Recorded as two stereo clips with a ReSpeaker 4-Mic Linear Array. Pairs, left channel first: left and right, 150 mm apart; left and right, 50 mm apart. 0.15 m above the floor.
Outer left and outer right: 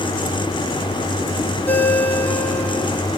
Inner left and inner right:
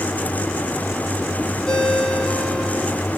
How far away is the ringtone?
About 3.5 m.